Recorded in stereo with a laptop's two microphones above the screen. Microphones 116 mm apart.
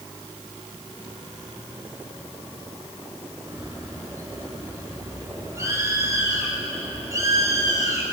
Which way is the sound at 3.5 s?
25° right (ahead or behind).